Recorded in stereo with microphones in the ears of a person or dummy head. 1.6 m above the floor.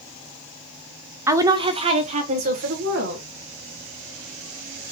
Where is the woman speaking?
15° right (ahead or behind), 0.7 m; by 3.2 s 55° right (ahead or behind), 1.6 m.